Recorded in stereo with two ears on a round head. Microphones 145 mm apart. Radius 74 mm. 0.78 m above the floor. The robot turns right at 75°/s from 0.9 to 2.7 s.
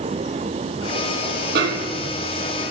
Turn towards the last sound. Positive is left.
turn(degrees=-10)